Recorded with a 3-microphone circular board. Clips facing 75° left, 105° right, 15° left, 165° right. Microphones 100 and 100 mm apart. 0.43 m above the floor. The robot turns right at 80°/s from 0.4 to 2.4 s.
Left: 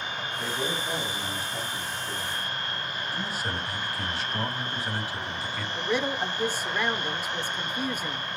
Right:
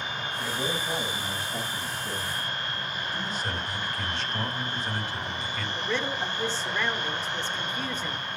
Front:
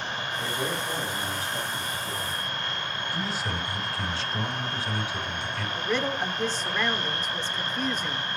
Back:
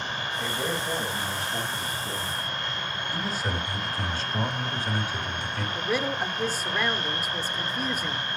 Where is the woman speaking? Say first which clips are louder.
Left 3 dB, even; 130° left, 1.3 m.